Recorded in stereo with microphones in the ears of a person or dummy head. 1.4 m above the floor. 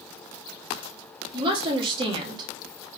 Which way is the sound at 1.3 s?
30° right (ahead or behind).